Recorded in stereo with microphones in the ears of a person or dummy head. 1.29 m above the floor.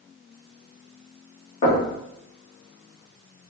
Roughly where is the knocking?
Left.